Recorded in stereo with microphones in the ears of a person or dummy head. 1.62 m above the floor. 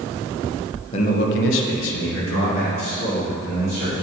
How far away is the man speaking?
About 0.7 m.